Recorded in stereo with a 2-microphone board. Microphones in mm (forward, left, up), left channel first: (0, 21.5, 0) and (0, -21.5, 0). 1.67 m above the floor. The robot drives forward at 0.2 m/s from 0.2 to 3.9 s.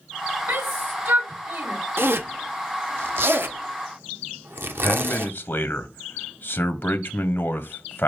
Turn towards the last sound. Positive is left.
turn(degrees=50)  # may be behind; listen again after turning